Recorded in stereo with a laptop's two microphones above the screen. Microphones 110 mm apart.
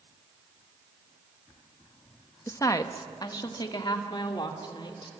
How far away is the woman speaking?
About 0.8 m.